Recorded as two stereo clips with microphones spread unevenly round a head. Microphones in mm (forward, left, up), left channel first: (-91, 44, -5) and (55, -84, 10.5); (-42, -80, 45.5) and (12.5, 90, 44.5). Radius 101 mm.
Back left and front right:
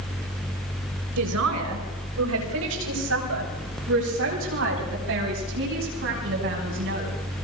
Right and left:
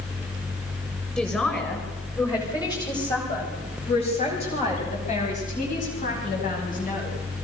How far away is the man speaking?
About 8 m.